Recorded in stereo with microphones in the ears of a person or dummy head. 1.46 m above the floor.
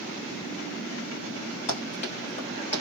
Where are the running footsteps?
50° left (ahead or behind), 2 m; by 2.8 s 40° left (ahead or behind), 1.7 m.